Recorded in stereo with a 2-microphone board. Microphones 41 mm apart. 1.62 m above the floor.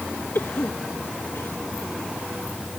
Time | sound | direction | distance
0.3 | a cough | 90° left | ?